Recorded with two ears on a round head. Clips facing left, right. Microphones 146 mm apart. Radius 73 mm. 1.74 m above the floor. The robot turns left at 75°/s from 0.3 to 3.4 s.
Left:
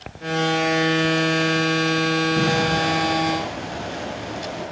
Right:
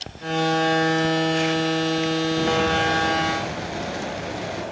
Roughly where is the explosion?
Left.